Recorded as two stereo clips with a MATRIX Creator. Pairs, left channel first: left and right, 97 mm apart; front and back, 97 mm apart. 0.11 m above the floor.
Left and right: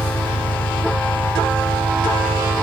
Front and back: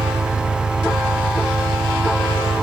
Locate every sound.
0.0 s an engine running: 115° left